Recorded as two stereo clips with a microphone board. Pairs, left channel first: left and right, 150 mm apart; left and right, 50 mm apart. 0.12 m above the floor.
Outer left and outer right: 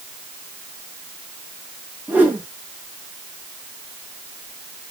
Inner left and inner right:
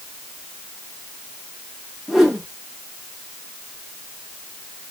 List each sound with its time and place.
2.1 s a whoosh: 10° right (ahead or behind), 3 m